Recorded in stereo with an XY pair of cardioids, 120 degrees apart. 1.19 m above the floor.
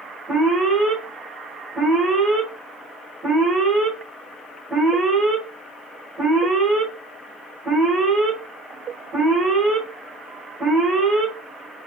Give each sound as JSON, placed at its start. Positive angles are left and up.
{"t": 0.3, "sound": "an alarm", "azimuth_deg": -15, "distance_m": 1.6}